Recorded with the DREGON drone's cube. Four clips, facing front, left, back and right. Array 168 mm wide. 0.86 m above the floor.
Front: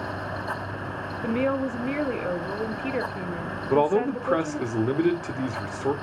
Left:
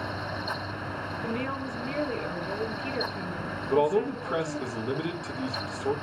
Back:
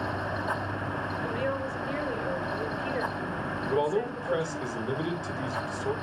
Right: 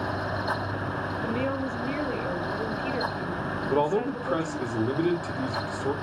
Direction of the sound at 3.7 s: 15° right.